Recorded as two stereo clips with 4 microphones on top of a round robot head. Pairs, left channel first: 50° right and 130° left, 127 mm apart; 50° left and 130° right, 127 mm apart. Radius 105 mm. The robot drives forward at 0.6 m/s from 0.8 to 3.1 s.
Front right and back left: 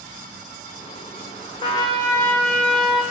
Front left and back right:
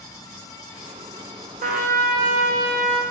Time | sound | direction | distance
1.6 | a trumpet | 105° right | 0.9 m